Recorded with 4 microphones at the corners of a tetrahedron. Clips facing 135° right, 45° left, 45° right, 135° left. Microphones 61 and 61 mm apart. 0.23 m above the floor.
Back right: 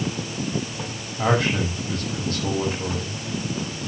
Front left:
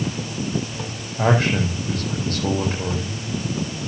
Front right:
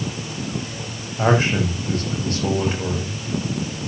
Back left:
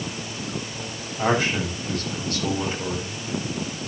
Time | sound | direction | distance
1.2 | a man speaking | 10° left | 8 m